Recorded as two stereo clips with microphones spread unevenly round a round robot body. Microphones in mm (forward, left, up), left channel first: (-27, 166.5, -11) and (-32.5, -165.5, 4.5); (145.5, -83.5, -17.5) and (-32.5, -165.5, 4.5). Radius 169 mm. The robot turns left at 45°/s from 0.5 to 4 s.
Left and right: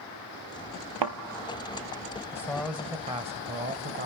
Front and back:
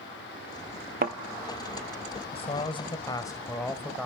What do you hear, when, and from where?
1.0 s a thud: 115° right, 1.0 m; by 1.2 s 120° right, 1.0 m
2.3 s a man speaking: 15° left, 1.0 m; by 4.1 s 60° right, 1.0 m